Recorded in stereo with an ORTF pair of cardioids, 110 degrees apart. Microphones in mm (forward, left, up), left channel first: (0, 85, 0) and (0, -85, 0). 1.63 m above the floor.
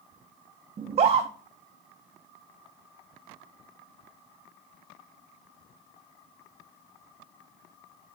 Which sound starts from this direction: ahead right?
A scream, at 0.8 s.